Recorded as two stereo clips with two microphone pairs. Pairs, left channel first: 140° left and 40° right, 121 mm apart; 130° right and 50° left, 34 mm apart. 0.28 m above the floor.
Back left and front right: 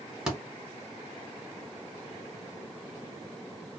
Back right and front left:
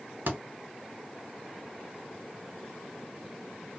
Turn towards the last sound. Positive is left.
turn(degrees=45)